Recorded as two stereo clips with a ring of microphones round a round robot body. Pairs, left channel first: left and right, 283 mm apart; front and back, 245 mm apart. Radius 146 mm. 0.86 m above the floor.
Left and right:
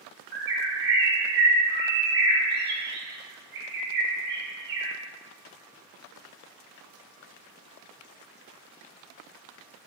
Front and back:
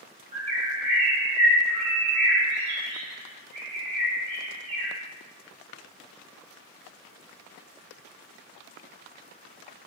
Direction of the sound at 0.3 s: 115° right.